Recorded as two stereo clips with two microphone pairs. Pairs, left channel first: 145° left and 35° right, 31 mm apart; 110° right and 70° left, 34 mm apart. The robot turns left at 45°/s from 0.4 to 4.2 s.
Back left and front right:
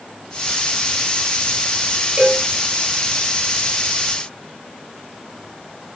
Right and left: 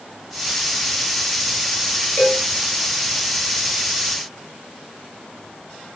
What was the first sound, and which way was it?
A cowbell, 80° right.